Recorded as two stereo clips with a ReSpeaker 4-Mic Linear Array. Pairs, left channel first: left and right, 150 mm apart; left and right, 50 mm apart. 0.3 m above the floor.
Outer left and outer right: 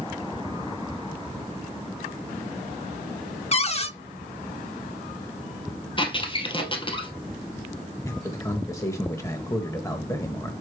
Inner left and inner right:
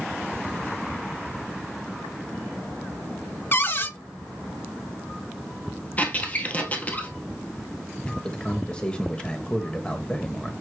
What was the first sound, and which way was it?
A cupboard door, 40° left (ahead or behind).